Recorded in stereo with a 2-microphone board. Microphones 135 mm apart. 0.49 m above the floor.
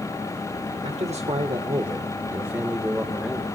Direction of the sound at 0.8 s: 55° right (ahead or behind).